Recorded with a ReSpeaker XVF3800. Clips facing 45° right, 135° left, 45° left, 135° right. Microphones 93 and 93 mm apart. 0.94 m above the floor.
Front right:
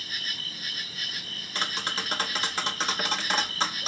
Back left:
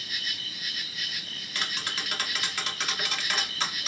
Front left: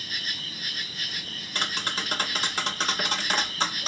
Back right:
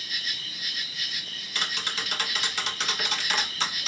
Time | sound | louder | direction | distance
0.0 | an insect | even, front left 1 dB | straight ahead | 0.7 m
1.6 | tapping | front right 3 dB, front left 2 dB | 5° left | 1.1 m